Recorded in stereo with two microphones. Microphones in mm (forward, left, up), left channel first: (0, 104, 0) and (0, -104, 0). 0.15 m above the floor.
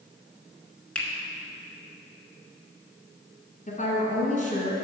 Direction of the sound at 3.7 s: 35° left (ahead or behind).